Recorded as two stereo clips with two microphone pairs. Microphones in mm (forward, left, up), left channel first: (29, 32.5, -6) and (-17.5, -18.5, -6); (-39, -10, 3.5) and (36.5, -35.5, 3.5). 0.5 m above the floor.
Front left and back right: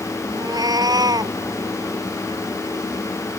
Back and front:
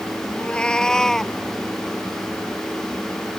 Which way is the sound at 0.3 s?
120° right.